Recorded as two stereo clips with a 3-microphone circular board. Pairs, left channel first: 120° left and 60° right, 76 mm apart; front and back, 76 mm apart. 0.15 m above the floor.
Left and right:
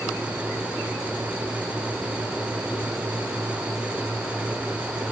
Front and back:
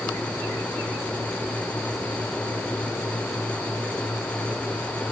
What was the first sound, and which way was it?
Only background noise.